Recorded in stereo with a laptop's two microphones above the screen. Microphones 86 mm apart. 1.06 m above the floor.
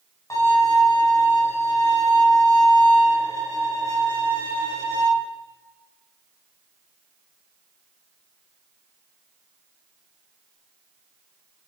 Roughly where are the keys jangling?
No keys jangling in this recording.